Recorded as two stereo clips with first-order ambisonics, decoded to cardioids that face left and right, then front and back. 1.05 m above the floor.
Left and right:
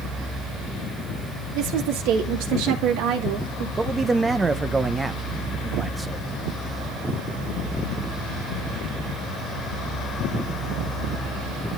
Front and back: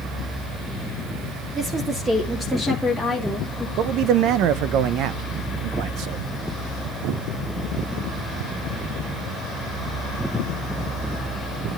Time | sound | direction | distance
1.6 | a woman speaking | 115° right | 1.3 m
3.8 | a man speaking | 165° right | 0.7 m